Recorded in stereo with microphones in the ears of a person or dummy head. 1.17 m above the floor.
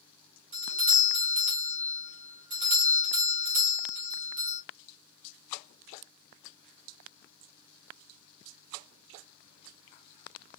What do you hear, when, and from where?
0.5 s a doorbell: 35° right (ahead or behind), 1.5 m